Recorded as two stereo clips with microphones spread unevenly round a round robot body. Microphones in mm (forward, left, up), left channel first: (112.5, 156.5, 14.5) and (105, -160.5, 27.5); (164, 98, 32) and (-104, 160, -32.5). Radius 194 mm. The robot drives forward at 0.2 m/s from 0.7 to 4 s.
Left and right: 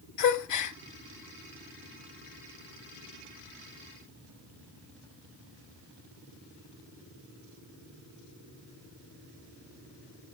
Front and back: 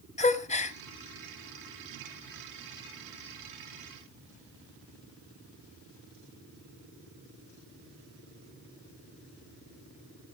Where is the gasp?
60° left, 0.8 m.